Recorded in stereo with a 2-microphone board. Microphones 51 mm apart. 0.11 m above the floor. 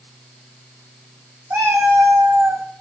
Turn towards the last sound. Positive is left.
turn(degrees=-60)  # may be behind; listen again after turning